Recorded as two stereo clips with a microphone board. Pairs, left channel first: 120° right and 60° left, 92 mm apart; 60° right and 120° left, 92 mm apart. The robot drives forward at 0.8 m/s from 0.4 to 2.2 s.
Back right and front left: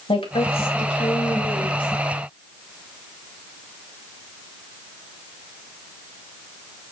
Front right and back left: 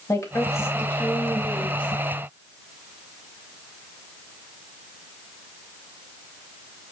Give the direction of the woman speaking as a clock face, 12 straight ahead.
4 o'clock.